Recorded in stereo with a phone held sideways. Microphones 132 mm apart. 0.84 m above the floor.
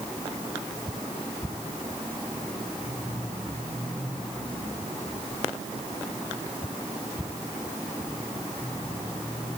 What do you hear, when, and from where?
Only background noise.